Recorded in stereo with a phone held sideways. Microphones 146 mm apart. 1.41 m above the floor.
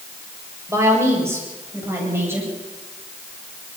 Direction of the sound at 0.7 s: 20° right (ahead or behind).